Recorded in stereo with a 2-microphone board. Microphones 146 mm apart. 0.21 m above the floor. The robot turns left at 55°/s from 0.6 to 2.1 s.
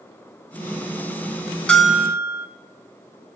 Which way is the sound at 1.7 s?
5° left (ahead or behind).